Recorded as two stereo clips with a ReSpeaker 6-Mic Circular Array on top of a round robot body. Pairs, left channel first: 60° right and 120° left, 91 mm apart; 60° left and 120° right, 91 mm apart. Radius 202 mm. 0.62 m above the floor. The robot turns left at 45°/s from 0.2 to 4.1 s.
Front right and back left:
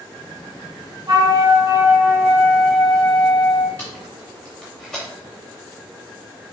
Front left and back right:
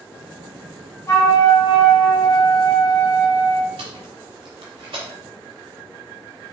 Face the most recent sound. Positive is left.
turn(degrees=-145)